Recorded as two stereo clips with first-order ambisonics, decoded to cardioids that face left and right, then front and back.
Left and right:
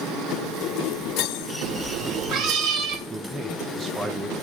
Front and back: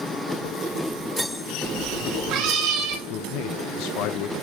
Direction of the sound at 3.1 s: 15° right.